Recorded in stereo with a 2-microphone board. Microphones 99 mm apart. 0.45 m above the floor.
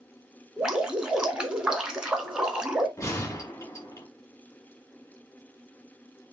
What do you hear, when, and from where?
0.6 s dripping: 10° right (ahead or behind), 0.7 m
3.0 s a gunshot: 35° left (ahead or behind), 1.9 m